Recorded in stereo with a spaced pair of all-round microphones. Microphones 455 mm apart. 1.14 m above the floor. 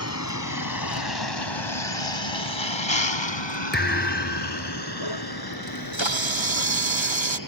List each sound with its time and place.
0.0 s a vehicle: 35° left (ahead or behind); by 7.5 s 45° left (ahead or behind)
3.7 s a thud: 20° left (ahead or behind)
5.7 s a camera shutter: 75° right (ahead or behind)